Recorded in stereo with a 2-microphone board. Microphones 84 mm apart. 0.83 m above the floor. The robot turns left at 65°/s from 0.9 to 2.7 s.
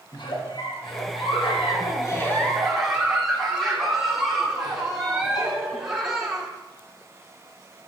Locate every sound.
0.1 s a giggle: 115° left, 1.2 m; by 6.5 s 5° right, 1.2 m